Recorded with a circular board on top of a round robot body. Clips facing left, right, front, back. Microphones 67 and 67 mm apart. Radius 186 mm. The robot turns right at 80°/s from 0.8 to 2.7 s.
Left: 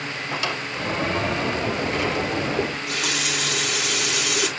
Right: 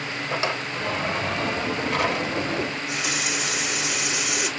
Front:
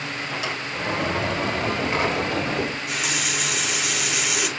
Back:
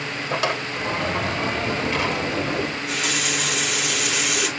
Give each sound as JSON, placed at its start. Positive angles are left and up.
{"t": 0.3, "sound": "a drawer", "azimuth_deg": -150, "distance_m": 2.5}
{"t": 2.6, "sound": "a running tap", "azimuth_deg": 75, "distance_m": 7.5}